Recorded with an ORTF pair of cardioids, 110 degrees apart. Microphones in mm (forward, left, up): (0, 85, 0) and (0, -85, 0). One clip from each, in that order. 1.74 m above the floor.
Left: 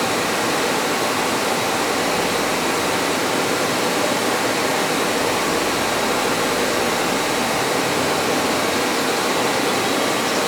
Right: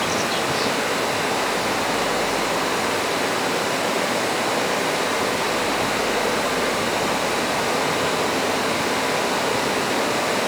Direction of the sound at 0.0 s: 55° left.